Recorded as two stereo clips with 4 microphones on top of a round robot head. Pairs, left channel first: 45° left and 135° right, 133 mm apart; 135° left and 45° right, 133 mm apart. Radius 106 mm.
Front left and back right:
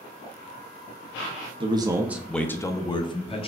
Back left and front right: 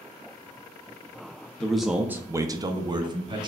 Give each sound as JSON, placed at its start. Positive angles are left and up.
{"t": 1.6, "sound": "a man speaking", "azimuth_deg": -145, "distance_m": 0.6}